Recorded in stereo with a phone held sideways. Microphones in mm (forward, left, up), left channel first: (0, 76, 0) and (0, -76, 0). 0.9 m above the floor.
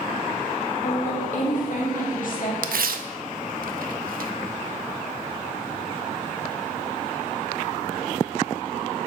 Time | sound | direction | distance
0.8 | a woman speaking | 65° left (ahead or behind) | 1.9 m
2.6 | tearing paper | 80° right | 0.6 m